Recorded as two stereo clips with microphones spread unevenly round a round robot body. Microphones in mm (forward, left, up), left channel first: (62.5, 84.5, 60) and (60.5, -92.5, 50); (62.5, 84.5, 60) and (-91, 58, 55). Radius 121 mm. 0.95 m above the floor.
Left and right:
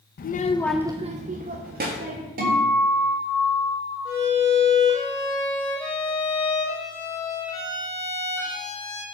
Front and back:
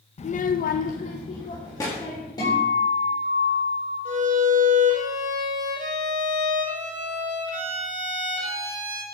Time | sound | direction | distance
0.2 | a child speaking | 55° left | 0.7 m
2.4 | a guitar | 60° right | 4 m
4.0 | a violin | 165° left | 3 m